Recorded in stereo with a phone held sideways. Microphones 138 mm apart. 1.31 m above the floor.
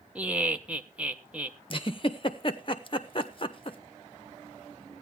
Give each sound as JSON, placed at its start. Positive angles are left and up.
{"t": 0.1, "sound": "laughter", "side_deg": -10, "distance_m": 0.9}
{"t": 1.7, "sound": "a giggle", "side_deg": 40, "distance_m": 0.8}